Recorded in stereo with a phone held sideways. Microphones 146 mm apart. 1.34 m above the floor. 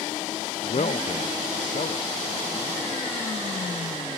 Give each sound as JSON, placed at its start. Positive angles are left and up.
{"t": 0.6, "sound": "a man speaking", "side_deg": 50}